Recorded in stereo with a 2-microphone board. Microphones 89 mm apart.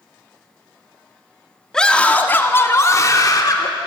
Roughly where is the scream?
Centre.